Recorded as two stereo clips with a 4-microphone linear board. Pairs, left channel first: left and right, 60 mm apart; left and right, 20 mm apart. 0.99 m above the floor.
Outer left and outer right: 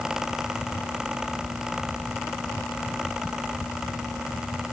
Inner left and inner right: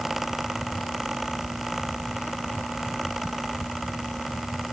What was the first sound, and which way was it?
Only background noise.